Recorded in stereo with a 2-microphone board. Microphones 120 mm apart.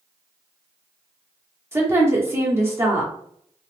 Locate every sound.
1.7 s a woman speaking: 20° right (ahead or behind), 0.9 m